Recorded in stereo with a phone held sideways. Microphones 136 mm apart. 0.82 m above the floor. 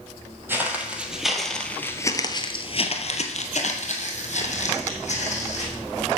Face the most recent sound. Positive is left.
turn(degrees=55)  # may be behind; listen again after turning